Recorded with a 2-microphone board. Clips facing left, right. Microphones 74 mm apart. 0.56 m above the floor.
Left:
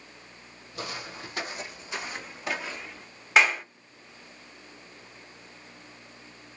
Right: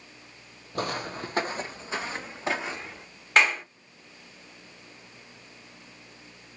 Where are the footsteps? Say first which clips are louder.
Right 7 dB; 50° right (ahead or behind), 0.8 m; by 3.0 s 20° right (ahead or behind), 1.6 m.